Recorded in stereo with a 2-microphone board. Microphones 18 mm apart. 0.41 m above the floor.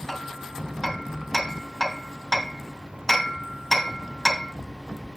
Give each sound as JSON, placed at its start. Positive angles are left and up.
{"t": 0.1, "sound": "hammering", "side_deg": 5, "distance_m": 2.5}